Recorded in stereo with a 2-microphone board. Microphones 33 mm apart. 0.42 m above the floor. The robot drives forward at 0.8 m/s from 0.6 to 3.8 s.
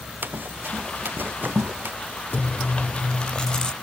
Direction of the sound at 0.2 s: 80° right.